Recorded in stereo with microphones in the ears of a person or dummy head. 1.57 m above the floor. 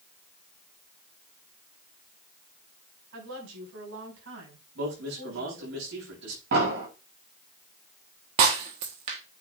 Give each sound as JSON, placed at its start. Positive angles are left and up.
{"t": 3.1, "sound": "a woman speaking", "side_deg": -80, "distance_m": 6.5}
{"t": 4.8, "sound": "a man speaking", "side_deg": -65, "distance_m": 7.0}
{"t": 6.5, "sound": "an explosion", "side_deg": -60, "distance_m": 7.0}
{"t": 8.4, "sound": "breaking glass", "side_deg": -30, "distance_m": 1.1}